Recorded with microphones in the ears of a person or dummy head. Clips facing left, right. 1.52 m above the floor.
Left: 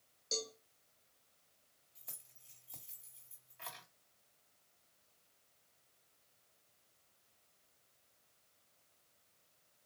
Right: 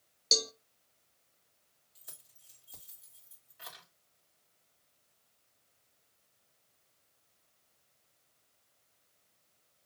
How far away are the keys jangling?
About 2 m.